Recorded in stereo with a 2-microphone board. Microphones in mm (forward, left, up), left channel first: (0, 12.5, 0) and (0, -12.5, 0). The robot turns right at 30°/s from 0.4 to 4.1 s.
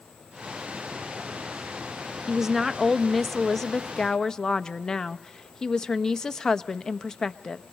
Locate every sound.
2.3 s a woman speaking: 25° right, 0.6 m; by 7.6 s 30° left, 0.6 m